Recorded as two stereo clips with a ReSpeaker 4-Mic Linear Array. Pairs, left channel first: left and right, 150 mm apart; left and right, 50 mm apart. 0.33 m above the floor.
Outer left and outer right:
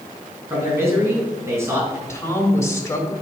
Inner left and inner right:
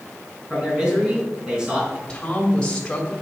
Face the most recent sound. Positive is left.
turn(degrees=20)  # may be behind; listen again after turning